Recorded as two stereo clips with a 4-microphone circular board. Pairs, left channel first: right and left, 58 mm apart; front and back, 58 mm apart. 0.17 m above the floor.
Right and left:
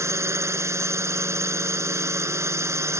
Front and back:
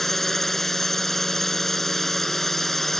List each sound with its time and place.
0.0 s a drone: 85° left